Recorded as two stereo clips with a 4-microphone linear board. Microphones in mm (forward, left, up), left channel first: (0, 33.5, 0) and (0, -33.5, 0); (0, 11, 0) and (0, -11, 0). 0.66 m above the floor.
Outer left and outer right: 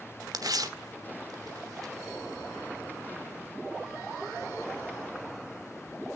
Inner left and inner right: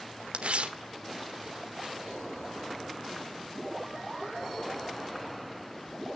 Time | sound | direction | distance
0.3 | tearing paper | 70° right (ahead or behind) | 1.2 m